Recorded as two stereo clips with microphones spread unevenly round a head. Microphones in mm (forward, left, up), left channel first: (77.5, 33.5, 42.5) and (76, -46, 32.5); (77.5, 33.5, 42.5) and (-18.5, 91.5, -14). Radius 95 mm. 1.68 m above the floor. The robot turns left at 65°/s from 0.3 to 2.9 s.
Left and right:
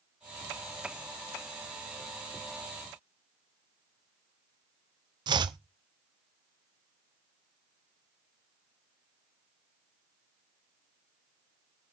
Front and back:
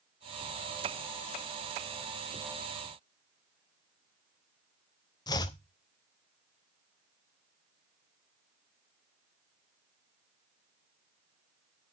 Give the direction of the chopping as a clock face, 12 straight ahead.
2 o'clock.